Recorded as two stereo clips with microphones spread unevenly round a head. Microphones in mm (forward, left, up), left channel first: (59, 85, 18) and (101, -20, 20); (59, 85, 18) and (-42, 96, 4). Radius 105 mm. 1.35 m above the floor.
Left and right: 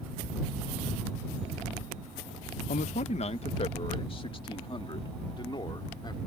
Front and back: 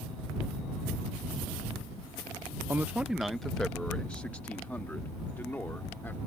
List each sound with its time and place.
2.7 s a man speaking: 105° left; by 6.2 s 65° left